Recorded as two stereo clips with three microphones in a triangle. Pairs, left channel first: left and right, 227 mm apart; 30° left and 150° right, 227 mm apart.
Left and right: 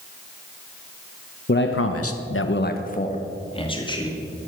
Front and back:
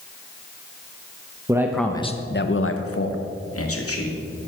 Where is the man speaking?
135° left, 1.0 m; by 4.2 s 20° left, 2.5 m.